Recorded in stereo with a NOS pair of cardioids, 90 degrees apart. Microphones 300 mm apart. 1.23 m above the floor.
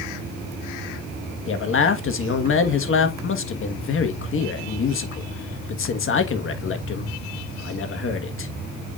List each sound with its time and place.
1.5 s a man speaking: 45° left, 1.6 m